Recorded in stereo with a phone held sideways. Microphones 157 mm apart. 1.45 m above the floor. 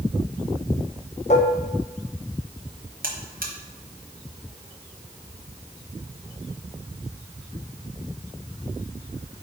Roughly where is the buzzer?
Right.